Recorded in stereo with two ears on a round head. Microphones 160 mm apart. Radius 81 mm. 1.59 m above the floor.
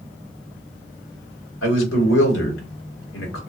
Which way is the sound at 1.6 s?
85° left.